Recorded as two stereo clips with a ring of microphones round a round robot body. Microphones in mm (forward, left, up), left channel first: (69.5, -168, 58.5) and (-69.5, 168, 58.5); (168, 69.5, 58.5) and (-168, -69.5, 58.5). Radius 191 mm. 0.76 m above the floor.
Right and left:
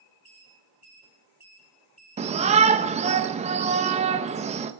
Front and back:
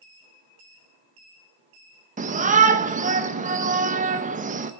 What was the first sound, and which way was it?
A shout, 160° left.